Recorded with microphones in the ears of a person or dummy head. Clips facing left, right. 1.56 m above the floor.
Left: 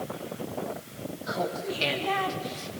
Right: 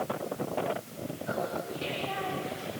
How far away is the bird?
No bird in this recording.